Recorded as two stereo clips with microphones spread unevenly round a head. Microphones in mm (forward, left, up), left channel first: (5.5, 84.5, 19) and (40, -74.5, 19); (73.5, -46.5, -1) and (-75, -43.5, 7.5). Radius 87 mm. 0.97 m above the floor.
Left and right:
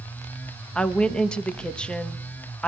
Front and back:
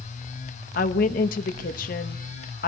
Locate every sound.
0.8 s a woman speaking: 20° left, 1.0 m